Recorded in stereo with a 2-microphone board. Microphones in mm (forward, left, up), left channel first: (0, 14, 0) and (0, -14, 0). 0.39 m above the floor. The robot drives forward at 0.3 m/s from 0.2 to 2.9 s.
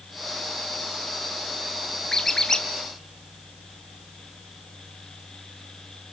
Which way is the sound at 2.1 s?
15° left (ahead or behind).